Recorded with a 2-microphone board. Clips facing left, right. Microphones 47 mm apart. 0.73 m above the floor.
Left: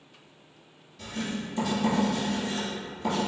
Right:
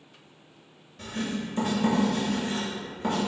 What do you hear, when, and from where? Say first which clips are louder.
1.0 s writing: right 2 dB; 55° right (ahead or behind), 1.5 m